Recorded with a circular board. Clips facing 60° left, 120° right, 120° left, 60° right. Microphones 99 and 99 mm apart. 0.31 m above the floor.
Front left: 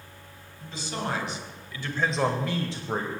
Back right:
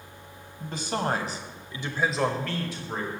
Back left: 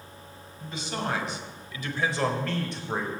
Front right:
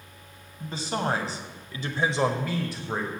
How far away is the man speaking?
About 1.8 m.